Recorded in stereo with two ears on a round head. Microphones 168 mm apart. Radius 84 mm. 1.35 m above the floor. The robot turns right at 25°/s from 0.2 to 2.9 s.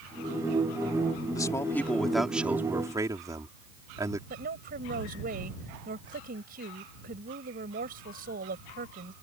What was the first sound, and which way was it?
A man speaking, 160° left.